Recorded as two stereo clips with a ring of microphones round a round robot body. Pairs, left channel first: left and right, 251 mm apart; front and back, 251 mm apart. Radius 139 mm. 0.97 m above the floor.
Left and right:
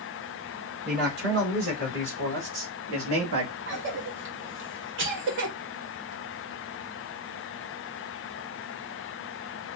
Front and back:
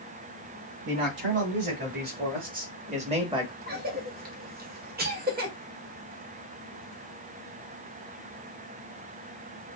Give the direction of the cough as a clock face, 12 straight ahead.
4 o'clock.